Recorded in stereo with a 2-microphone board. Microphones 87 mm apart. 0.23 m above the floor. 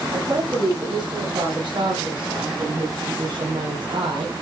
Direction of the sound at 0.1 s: 60° right (ahead or behind).